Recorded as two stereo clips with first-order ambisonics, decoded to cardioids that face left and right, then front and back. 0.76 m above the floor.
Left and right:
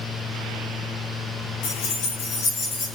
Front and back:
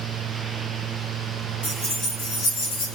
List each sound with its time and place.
1.6 s keys jangling: 80° left, 0.8 m; by 3.0 s 15° left, 0.7 m